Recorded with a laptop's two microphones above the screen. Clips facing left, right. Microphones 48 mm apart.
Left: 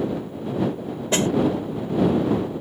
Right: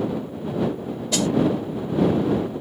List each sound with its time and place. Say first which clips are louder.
1.1 s a snare drum: left 2 dB; 35° left (ahead or behind)